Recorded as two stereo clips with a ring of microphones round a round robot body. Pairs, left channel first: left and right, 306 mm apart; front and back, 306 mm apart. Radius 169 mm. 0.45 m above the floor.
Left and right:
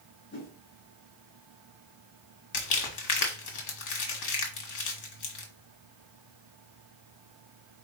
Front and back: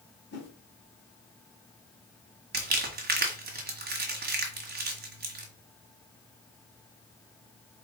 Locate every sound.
0.3 s a whoosh: 45° left, 1.9 m
2.5 s crumpling: 120° left, 1.4 m